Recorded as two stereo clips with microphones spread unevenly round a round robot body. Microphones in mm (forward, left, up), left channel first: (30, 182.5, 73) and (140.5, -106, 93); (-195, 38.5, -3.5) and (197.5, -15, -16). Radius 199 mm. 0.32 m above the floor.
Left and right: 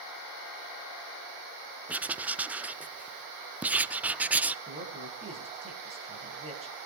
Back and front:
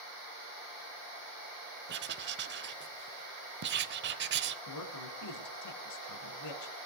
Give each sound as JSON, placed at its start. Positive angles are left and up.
{"t": 1.9, "sound": "writing", "azimuth_deg": 20, "distance_m": 0.7}
{"t": 4.7, "sound": "a man speaking", "azimuth_deg": -140, "distance_m": 3.5}